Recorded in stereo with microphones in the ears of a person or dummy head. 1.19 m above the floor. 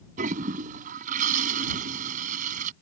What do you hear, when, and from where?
0.2 s a toilet flushing: 45° right (ahead or behind)